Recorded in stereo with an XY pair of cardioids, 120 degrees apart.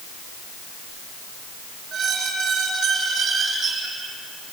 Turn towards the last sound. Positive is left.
turn(degrees=-50)